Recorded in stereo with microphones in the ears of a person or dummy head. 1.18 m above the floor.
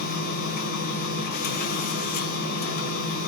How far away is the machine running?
About 1.8 m.